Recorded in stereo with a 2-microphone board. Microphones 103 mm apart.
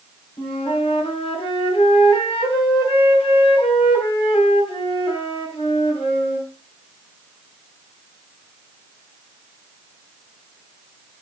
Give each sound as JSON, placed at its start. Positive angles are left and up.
{"t": 0.4, "sound": "a flute", "side_deg": 70, "distance_m": 3.5}